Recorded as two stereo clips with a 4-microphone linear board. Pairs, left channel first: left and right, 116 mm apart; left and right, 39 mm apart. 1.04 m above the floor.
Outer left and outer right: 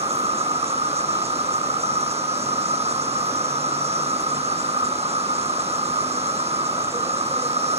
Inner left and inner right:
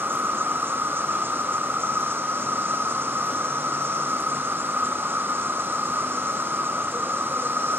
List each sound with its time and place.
0.0 s an insect: 65° right (ahead or behind), 0.8 m